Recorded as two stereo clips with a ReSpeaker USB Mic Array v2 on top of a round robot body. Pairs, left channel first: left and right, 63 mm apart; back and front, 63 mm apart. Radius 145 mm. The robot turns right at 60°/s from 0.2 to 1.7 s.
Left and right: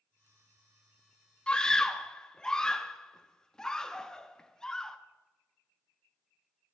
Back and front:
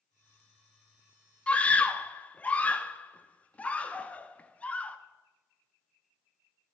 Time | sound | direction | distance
1.5 | a scream | 140° left | 1.1 m